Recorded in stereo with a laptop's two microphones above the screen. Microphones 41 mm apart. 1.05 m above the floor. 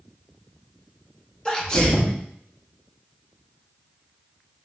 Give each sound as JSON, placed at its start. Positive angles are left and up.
{"t": 1.4, "sound": "a sneeze", "side_deg": 20, "distance_m": 1.0}